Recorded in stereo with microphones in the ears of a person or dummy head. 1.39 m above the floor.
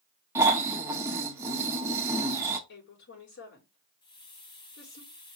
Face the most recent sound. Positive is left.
turn(degrees=25)  # may be behind; listen again after turning